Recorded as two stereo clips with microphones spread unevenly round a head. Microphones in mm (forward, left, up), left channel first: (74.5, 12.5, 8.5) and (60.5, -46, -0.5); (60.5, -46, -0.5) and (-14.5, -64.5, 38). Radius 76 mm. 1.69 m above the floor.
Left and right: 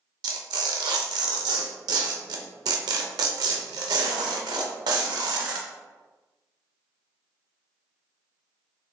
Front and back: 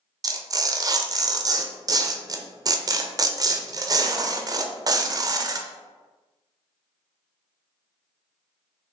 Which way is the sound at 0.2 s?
120° right.